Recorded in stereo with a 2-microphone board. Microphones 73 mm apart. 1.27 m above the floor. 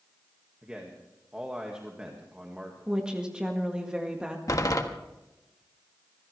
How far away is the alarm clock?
No alarm clock in this recording.